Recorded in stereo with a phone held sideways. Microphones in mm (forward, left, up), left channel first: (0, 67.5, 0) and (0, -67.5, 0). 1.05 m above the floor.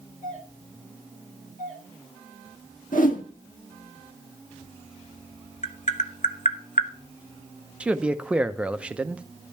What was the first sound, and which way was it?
A doorbell, 75° left (ahead or behind).